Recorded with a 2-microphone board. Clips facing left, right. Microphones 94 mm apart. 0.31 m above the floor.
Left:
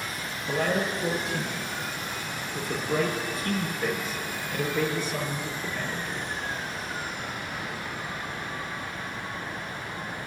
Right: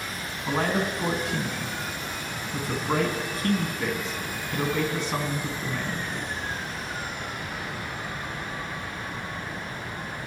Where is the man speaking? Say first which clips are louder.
Right 1 dB; 65° right (ahead or behind), 3 m.